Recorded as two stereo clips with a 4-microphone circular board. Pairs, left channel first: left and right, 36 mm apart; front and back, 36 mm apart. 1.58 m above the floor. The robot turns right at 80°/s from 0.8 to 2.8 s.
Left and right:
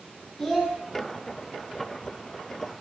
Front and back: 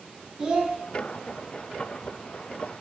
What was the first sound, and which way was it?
A child speaking, 160° left.